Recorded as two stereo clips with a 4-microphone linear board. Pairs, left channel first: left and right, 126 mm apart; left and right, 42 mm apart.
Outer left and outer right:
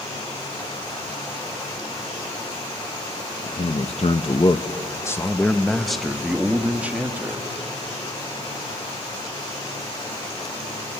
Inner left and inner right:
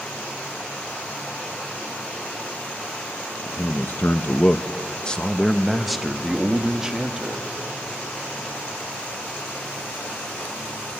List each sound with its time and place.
3.4 s a man speaking: 60° left (ahead or behind), 1.0 m; by 7.5 s 15° right (ahead or behind), 1.9 m